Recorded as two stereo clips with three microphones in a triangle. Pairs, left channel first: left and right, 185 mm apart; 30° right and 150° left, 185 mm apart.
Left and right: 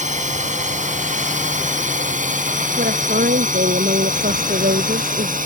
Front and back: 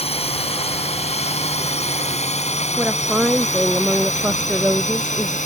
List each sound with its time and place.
0.0 s a drone: 70° right; by 5.5 s 65° right
2.8 s a woman speaking: 125° right